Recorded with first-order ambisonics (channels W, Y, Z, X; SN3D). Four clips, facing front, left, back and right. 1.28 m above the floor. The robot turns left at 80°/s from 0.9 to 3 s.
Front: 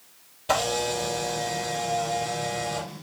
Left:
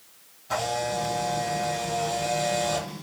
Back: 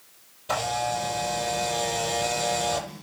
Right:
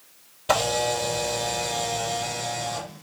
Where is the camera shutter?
65° right, 5.5 m; by 2.9 s 135° left, 5.5 m.